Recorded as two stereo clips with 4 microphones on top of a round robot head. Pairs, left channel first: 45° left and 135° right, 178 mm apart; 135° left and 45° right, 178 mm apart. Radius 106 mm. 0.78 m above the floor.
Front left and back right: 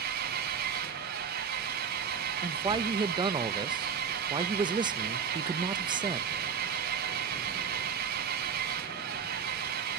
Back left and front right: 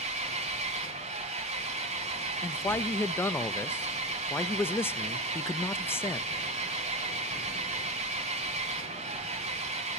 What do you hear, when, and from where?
0.0 s an engine running: 95° right, 1.9 m
2.4 s a man speaking: 160° right, 0.6 m